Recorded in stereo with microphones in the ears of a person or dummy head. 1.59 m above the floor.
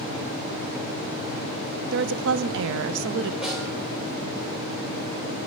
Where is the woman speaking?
70° right (ahead or behind), 0.5 m.